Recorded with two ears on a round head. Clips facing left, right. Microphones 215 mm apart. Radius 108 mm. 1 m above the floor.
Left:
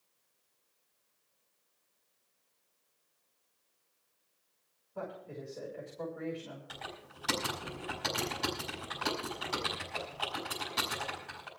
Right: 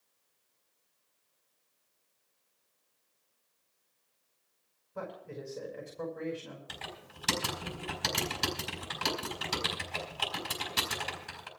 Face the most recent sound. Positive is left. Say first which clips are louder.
# even
turn(degrees=-35)  # may be behind; listen again after turning